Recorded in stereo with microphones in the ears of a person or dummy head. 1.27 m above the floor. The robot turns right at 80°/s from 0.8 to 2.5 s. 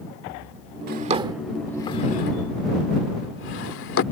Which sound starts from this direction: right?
A drawer, at 0.9 s.